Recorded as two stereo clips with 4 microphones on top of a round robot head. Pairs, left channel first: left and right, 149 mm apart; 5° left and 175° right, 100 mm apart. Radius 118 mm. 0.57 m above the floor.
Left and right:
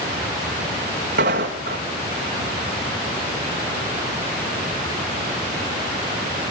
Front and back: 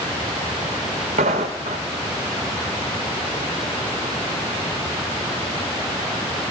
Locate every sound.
1.2 s footsteps: 140° right, 2 m